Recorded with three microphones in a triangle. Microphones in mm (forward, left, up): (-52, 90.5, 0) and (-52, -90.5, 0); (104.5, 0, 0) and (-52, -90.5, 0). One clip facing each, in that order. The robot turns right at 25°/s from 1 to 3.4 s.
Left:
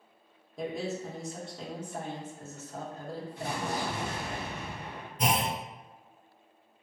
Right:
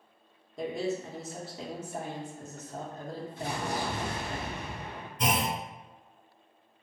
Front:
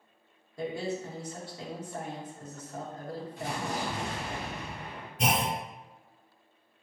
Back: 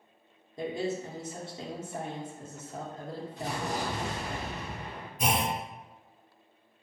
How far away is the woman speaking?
About 0.7 m.